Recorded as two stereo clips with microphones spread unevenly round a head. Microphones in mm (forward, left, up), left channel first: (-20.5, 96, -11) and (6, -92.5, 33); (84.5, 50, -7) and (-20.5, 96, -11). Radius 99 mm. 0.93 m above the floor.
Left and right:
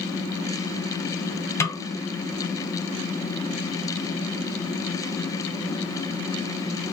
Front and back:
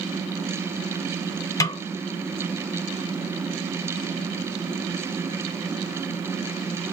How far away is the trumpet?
No trumpet in this recording.